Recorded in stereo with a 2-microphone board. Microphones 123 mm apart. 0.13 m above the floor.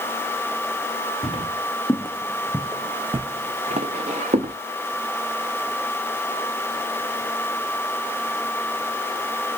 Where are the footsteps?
45° left (ahead or behind), 1.0 m; by 4.5 s 85° right, 1.1 m.